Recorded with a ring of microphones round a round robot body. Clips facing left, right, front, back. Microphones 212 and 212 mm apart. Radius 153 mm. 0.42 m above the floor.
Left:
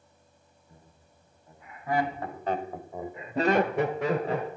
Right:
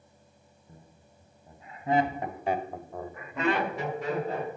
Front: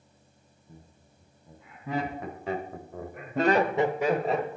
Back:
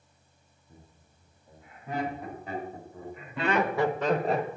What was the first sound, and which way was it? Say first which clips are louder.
Laughter: right 4 dB, front 3 dB; 35° right.